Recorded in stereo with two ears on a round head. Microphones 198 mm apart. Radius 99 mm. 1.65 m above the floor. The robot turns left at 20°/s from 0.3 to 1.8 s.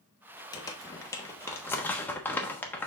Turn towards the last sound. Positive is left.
turn(degrees=10)  # may be behind; listen again after turning